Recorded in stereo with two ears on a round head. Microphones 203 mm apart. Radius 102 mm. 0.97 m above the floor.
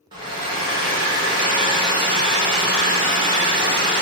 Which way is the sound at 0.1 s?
20° right (ahead or behind).